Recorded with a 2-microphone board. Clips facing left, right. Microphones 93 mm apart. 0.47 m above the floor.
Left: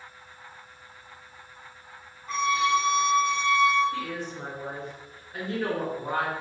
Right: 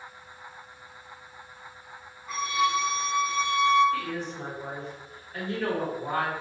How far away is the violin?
About 0.6 m.